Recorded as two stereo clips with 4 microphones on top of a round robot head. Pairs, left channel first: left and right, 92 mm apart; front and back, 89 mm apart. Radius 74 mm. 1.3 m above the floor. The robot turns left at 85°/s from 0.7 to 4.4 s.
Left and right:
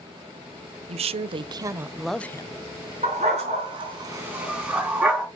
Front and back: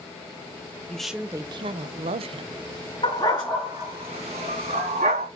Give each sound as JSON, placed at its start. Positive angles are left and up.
{"t": 0.9, "sound": "a woman speaking", "azimuth_deg": -80, "distance_m": 0.7}
{"t": 3.0, "sound": "a dog barking", "azimuth_deg": -45, "distance_m": 3.5}